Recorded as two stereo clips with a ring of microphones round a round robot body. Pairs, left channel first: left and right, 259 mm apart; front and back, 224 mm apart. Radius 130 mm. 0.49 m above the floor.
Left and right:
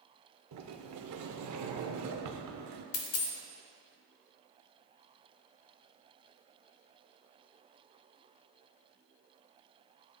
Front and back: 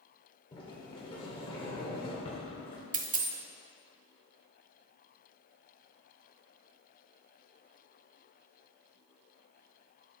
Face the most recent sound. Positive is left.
turn(degrees=125)